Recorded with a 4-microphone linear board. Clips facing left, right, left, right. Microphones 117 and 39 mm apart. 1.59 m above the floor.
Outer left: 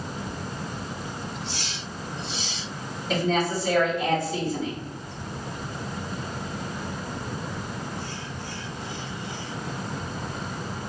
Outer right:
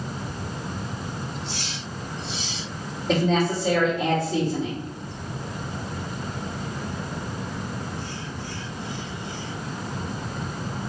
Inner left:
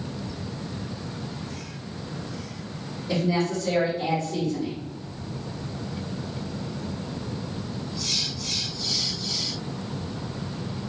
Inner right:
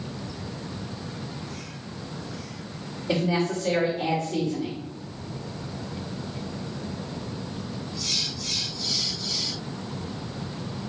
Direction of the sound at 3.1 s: 80° right.